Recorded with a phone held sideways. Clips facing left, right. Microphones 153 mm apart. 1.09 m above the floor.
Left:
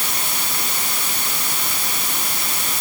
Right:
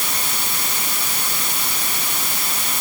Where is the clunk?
I don't hear a clunk.